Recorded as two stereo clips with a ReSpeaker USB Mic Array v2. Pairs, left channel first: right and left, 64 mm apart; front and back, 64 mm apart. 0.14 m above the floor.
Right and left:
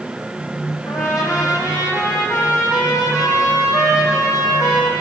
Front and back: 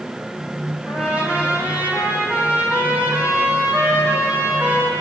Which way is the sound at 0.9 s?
110° right.